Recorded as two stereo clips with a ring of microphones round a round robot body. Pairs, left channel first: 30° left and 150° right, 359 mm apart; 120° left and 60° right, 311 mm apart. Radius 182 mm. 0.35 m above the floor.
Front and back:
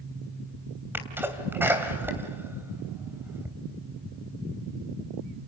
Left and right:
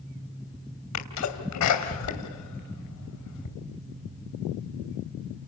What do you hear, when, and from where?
0.9 s a sneeze: 125° left, 2.5 m